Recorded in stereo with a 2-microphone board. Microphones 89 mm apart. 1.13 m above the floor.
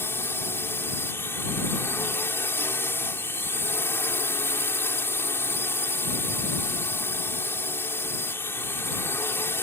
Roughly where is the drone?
Left.